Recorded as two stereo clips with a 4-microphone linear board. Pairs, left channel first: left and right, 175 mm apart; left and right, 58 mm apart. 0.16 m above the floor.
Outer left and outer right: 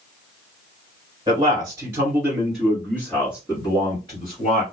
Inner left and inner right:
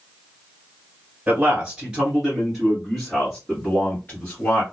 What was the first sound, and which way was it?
A man speaking, 20° right (ahead or behind).